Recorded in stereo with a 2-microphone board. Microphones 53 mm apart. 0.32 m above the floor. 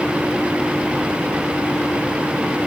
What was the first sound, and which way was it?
Only background noise.